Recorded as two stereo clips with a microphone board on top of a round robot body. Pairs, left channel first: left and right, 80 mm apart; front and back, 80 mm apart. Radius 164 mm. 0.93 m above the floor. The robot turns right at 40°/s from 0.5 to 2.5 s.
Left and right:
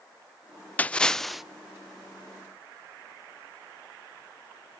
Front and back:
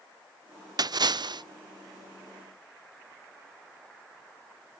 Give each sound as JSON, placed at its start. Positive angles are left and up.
{"t": 0.8, "sound": "a splash", "azimuth_deg": 155, "distance_m": 0.5}